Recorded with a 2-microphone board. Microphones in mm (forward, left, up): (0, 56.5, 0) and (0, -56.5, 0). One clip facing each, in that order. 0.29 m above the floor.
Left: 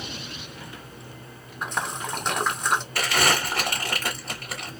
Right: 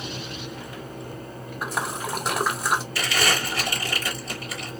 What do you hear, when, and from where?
1.6 s a splash: 5° right (ahead or behind), 0.5 m
3.0 s crumpling: 55° left (ahead or behind), 1.7 m